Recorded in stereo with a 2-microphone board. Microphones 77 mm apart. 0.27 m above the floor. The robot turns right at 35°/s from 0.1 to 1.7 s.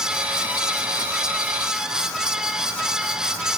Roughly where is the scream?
No scream in this recording.